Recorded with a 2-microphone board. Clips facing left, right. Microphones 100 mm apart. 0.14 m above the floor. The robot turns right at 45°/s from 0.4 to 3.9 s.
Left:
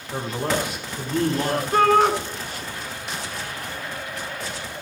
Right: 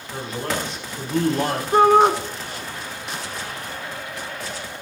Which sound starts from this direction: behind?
A man speaking, at 0.1 s.